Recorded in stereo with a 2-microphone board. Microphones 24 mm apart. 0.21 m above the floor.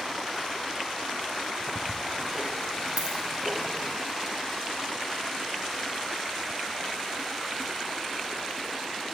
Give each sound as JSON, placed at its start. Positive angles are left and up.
{"t": 1.6, "sound": "ticking", "side_deg": -10, "distance_m": 0.7}
{"t": 3.0, "sound": "a dropped coin", "side_deg": -60, "distance_m": 2.5}